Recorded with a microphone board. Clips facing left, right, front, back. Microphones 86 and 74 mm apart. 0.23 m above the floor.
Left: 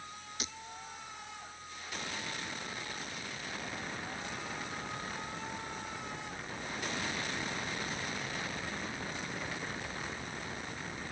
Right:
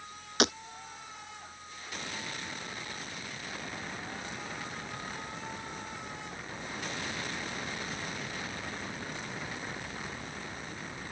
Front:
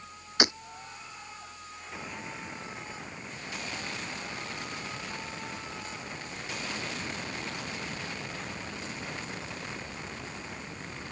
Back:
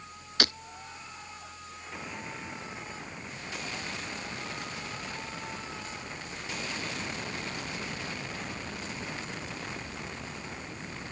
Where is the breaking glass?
70° right.